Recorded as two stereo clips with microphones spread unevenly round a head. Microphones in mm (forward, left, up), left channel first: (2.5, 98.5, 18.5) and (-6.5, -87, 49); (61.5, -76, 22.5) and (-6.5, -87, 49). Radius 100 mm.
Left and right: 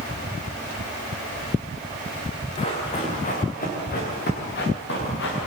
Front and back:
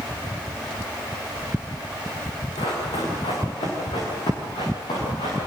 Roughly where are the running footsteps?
Ahead left.